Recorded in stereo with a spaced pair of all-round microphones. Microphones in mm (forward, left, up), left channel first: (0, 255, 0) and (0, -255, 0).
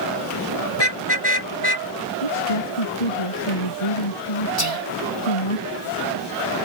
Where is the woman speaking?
85° left.